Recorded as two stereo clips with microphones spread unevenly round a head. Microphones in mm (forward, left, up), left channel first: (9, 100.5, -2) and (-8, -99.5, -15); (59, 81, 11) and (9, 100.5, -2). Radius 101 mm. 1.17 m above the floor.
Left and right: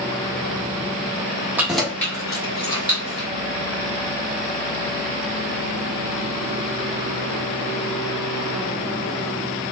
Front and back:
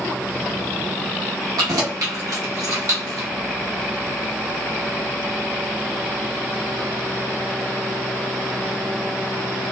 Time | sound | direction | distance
1.6 | keys jangling | 175° right | 0.7 m